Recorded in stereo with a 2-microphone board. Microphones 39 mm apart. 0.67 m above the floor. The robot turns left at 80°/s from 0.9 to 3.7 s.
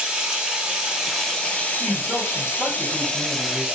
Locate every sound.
0.0 s running water: 160° right, 0.9 m; by 3.8 s 25° right, 0.9 m
1.8 s a man speaking: 155° right, 1.5 m; by 3.8 s 50° left, 1.5 m